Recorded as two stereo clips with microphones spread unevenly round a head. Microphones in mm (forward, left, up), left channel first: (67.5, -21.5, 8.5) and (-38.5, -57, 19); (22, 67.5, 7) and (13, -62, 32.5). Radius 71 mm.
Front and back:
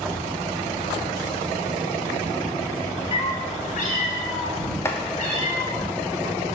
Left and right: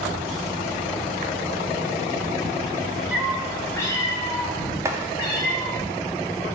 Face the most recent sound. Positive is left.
turn(degrees=-25)